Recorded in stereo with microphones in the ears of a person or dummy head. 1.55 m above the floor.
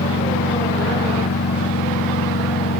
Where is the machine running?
60° left (ahead or behind).